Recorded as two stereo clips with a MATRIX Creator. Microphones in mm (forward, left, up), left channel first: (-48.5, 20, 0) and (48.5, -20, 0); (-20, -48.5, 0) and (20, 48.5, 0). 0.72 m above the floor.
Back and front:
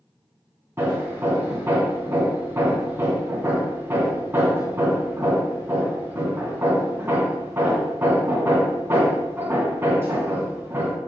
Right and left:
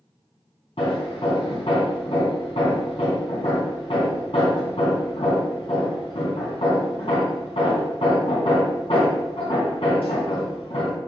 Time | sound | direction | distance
0.8 | hammering | 90° right | 2.5 m